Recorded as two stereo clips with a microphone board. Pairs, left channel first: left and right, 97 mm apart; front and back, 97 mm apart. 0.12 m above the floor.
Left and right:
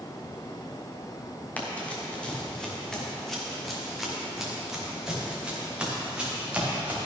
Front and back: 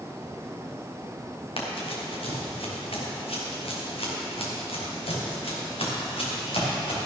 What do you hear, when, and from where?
1.6 s running footsteps: 15° left, 3.5 m; by 7.1 s 15° right, 5.5 m